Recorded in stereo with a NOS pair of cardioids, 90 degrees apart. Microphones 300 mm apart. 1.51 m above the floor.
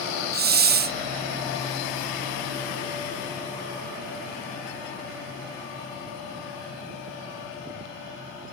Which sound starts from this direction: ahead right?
A hiss, at 0.3 s.